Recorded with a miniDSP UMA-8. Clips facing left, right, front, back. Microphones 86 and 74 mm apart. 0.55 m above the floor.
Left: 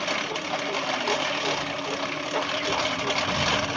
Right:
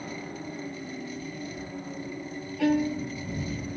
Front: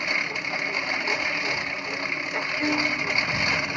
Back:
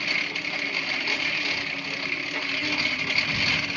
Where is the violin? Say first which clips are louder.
Right 2 dB, front 6 dB; 60° right.